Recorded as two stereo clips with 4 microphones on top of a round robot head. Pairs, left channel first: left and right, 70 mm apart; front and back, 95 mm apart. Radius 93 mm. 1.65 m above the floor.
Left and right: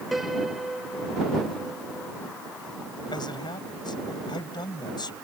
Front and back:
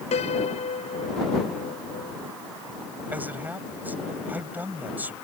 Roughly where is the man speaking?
Left.